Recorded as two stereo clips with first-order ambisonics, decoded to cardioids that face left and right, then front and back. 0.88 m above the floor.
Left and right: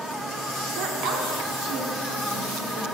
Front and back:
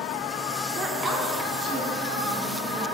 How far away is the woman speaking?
About 0.6 m.